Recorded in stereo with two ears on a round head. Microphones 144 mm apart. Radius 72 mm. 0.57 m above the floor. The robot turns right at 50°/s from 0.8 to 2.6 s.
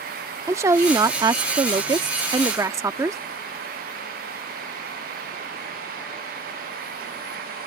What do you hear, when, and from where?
0.5 s a woman speaking: 20° right (ahead or behind)